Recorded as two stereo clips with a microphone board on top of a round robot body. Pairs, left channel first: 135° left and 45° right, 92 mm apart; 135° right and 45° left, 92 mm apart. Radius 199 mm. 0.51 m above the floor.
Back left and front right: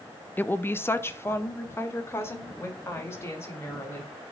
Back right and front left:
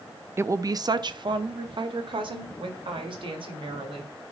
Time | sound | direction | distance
0.4 | a woman speaking | 85° left | 0.7 m